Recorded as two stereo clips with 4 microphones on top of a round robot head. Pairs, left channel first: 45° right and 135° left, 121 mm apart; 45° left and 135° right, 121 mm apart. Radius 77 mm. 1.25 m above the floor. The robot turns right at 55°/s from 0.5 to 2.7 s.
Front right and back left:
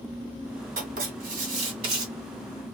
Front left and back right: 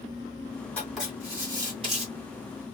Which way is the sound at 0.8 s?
125° left.